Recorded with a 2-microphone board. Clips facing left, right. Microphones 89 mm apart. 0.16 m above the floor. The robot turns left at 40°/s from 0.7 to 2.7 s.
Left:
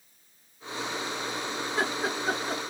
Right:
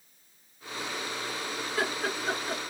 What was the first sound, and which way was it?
Laughter, 30° left (ahead or behind).